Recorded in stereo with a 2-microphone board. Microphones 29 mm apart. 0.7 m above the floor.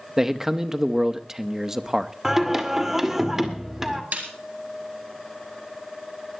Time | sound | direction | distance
0.2 | a man speaking | 15° right (ahead or behind) | 0.9 m
2.2 | singing | 15° right (ahead or behind) | 1.8 m
4.1 | a snare drum | 75° right (ahead or behind) | 3.5 m